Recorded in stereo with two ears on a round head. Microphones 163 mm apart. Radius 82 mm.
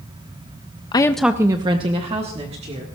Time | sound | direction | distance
0.9 | a woman speaking | 25° left (ahead or behind) | 0.5 m